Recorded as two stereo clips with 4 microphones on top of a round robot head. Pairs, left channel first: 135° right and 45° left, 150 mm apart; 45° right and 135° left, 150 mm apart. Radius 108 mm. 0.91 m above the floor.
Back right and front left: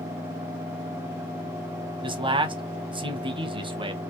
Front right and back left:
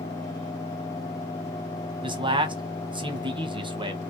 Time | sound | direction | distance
2.0 | a man speaking | 90° left | 1.0 m